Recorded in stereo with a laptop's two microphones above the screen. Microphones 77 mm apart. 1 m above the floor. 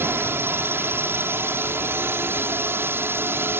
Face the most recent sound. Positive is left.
turn(degrees=-30)  # may be behind; listen again after turning